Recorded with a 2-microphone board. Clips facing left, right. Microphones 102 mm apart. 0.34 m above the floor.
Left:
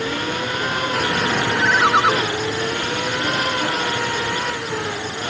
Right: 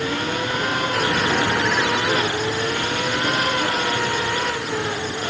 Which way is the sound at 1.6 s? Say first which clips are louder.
Left 4 dB; 80° left.